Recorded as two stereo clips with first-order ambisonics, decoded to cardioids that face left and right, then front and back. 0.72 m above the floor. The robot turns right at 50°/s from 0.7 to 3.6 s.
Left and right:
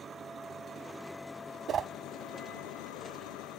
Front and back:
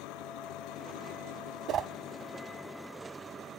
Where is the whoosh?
145° right; by 1.9 s 135° right.